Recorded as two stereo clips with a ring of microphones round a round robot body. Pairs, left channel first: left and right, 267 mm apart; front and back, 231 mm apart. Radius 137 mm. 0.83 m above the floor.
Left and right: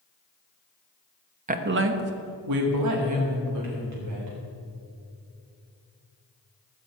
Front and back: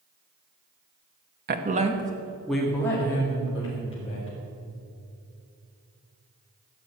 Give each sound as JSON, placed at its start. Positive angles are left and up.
{"t": 1.5, "sound": "a woman speaking", "azimuth_deg": -145, "distance_m": 1.2}